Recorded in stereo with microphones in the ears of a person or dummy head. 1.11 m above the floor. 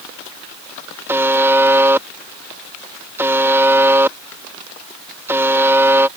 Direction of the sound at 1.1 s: 10° right (ahead or behind).